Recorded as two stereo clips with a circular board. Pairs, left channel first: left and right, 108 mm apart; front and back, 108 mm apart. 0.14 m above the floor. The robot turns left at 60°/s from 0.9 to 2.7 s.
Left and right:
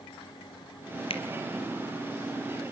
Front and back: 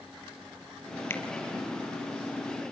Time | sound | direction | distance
1.1 | a finger snap | 70° left | 2.5 m